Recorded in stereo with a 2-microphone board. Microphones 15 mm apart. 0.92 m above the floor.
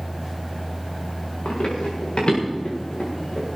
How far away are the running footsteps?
About 5.5 m.